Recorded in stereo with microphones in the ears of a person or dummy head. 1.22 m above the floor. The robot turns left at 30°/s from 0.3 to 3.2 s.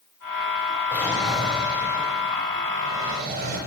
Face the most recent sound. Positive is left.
turn(degrees=-60)